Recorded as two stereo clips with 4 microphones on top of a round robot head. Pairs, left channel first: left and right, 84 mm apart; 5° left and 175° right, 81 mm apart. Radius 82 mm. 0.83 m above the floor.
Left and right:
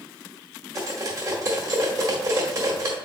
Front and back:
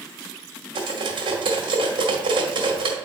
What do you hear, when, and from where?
0.8 s cutlery clinking: 145° right, 1.3 m